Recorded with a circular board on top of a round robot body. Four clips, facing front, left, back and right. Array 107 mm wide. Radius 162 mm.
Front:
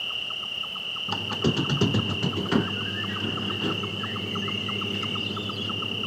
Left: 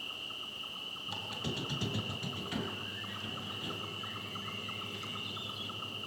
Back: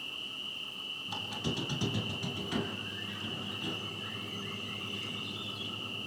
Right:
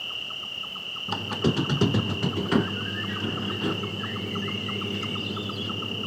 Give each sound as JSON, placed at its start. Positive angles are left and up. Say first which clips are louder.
{"t": 0.0, "sound": "an insect", "louder": "right 7 dB, front 9 dB", "azimuth_deg": -30, "distance_m": 3.0}
{"t": 1.1, "sound": "a squeak", "louder": "right 15 dB, front 11 dB", "azimuth_deg": -55, "distance_m": 0.6}